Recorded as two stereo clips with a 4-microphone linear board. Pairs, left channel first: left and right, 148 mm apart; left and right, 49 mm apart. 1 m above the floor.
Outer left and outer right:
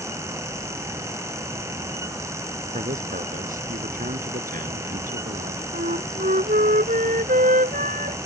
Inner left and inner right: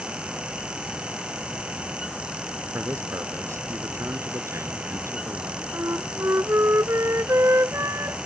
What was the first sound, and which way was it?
A man speaking, 60° right (ahead or behind).